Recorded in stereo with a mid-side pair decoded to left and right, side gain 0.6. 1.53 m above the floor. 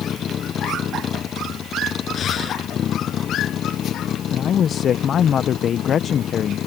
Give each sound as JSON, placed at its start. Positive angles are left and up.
{"t": 0.0, "sound": "a vehicle", "azimuth_deg": 40}
{"t": 2.1, "sound": "breathing", "azimuth_deg": 40}
{"t": 4.3, "sound": "a man speaking", "azimuth_deg": 45}